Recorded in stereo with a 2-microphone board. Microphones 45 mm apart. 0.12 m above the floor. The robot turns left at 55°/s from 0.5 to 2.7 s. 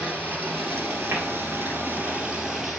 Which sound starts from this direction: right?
Tapping, at 1.1 s.